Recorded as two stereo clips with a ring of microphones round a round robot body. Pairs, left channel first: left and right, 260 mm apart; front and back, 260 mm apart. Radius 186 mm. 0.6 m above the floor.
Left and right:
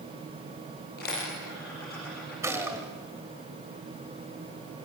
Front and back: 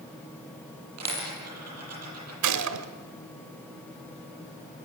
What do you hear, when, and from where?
1.0 s a dropped coin: 155° left, 8.5 m
2.4 s a gunshot: 170° right, 1.4 m